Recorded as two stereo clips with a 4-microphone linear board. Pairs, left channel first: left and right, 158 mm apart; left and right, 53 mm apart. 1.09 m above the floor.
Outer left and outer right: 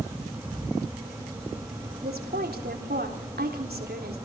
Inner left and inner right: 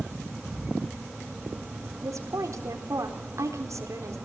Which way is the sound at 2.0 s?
80° right.